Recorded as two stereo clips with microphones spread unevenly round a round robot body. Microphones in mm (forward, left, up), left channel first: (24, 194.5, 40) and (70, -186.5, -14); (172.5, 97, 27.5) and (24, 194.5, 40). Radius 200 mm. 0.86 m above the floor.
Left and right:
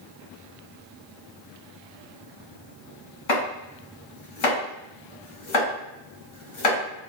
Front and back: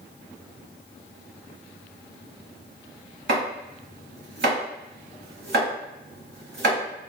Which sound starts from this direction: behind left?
Chopping, at 3.3 s.